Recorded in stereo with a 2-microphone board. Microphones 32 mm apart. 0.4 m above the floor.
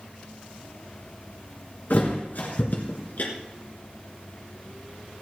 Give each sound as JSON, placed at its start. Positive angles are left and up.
{"t": 1.9, "sound": "a thud", "side_deg": 65, "distance_m": 3.0}